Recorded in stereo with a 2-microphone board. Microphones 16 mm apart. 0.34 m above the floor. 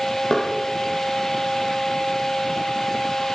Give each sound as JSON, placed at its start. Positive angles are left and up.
{"t": 0.3, "sound": "knocking", "side_deg": 40, "distance_m": 8.0}